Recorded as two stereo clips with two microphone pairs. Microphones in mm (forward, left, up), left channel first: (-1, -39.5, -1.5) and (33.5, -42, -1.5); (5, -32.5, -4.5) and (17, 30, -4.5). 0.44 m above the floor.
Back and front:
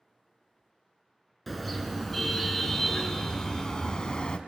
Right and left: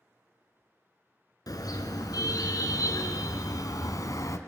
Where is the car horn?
100° right, 3 m; by 4.4 s 125° right, 1.7 m.